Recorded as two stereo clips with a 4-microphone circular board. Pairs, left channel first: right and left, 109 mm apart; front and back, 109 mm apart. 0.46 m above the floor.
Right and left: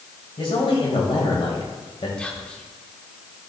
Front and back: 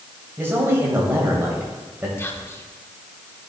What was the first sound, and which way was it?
A man speaking, 115° right.